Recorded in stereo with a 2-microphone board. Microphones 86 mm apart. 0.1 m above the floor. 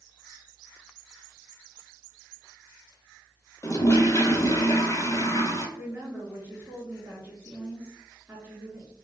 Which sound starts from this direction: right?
A woman speaking, at 5.8 s.